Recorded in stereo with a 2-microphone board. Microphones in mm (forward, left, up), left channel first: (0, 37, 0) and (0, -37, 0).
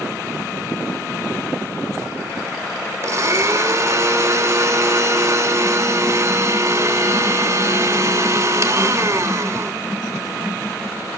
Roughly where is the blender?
Right.